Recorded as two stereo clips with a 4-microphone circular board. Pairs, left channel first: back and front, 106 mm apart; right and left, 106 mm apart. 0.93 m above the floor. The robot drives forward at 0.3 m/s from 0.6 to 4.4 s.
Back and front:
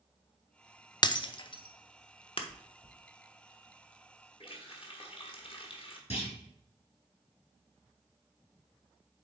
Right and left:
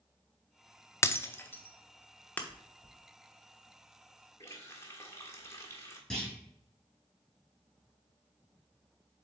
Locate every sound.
1.0 s breaking glass: 145° right, 0.5 m; by 2.4 s 165° right, 0.9 m
2.5 s chewing: 115° right, 1.7 m
4.4 s a running tap: 150° right, 1.3 m
6.1 s a clunk: 175° right, 4 m